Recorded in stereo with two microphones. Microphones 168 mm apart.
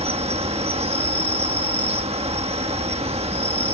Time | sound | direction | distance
0.0 | an insect | 40° right (ahead or behind) | ?